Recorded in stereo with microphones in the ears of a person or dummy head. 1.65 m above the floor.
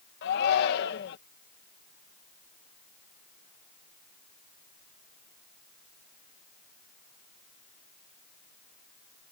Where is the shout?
60° left (ahead or behind).